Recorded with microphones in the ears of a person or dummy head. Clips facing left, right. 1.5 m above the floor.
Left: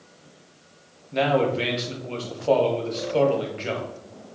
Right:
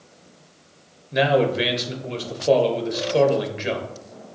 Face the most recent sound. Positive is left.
turn(degrees=-20)  # may be behind; listen again after turning